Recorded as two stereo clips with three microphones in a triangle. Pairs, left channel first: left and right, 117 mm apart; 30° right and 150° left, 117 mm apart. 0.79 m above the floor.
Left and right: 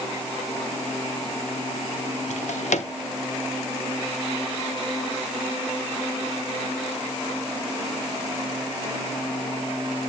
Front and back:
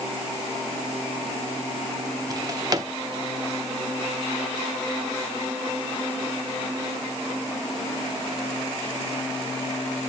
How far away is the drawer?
About 0.7 m.